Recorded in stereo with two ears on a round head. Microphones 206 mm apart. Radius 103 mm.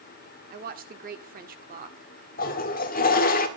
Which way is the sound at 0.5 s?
40° right (ahead or behind).